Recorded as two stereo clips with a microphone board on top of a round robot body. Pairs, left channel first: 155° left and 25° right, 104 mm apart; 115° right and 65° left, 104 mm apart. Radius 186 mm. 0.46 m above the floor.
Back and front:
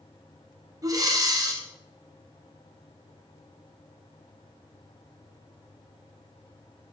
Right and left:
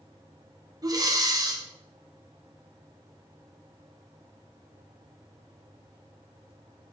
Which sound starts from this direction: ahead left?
Breathing, at 0.8 s.